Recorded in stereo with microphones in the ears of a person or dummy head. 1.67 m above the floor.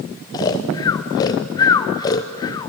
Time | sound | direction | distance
0.3 | snoring | 20° left (ahead or behind) | 0.6 m